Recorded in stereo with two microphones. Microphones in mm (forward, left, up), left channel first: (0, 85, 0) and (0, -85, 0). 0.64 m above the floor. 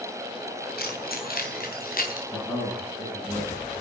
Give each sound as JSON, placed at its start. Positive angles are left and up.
{"t": 0.8, "sound": "keys jangling", "side_deg": 65, "distance_m": 3.0}
{"t": 2.3, "sound": "a man speaking", "side_deg": 20, "distance_m": 5.5}